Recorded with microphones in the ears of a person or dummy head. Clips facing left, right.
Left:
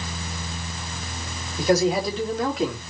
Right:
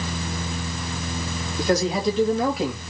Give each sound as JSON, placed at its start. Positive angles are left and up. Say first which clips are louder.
{"t": 1.6, "sound": "a man speaking", "louder": "left 2 dB", "side_deg": 10, "distance_m": 2.5}